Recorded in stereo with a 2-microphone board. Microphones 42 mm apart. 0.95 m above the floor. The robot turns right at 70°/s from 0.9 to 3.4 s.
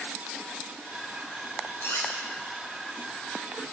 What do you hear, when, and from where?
1.8 s cutlery clinking: 65° left (ahead or behind), 2 m; by 2.1 s 90° left, 2 m